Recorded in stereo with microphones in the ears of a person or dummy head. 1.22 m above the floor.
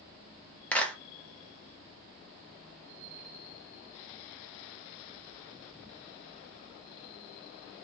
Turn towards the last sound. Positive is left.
turn(degrees=10)  # may be behind; listen again after turning